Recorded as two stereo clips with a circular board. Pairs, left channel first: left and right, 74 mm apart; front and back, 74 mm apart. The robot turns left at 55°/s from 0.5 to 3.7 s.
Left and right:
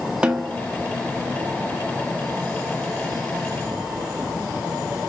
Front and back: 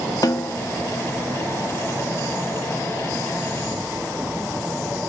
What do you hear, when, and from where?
0.2 s a snare drum: 15° right, 0.6 m; by 0.6 s 20° right, 0.6 m